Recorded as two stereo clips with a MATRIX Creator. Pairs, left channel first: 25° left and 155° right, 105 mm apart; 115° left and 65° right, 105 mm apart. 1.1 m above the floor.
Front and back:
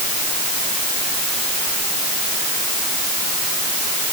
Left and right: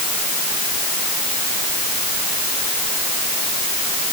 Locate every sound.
Only background noise.